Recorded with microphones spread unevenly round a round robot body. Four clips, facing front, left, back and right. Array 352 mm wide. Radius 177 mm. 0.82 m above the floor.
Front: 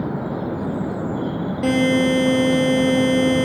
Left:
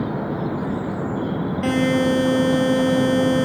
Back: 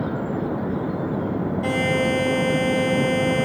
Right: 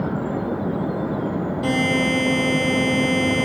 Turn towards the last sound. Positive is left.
turn(degrees=0)